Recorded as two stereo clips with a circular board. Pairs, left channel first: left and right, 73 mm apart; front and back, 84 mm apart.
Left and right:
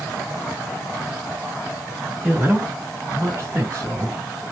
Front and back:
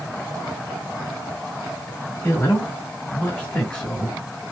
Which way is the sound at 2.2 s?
35° right.